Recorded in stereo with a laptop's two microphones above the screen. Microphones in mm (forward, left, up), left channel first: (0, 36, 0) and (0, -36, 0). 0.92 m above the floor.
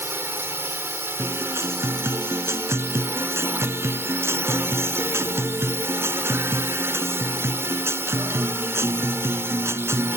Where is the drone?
35° right (ahead or behind).